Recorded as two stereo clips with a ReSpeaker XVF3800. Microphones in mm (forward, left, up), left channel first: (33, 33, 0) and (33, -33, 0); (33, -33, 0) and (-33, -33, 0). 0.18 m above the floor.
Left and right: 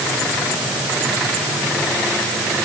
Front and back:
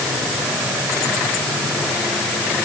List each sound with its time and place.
Only background noise.